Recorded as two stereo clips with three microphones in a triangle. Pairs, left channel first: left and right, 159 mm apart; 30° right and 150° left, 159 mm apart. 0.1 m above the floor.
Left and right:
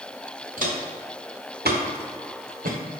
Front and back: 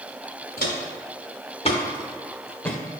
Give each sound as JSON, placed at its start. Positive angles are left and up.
{"t": 0.6, "sound": "footsteps", "azimuth_deg": -55, "distance_m": 1.2}